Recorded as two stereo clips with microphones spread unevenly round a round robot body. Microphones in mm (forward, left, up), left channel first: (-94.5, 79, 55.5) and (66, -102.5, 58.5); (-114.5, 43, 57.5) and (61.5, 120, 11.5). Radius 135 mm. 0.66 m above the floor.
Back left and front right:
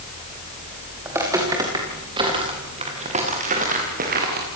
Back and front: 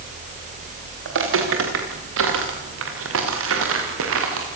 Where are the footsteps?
30° left, 6 m; by 4.5 s 5° left, 5.5 m.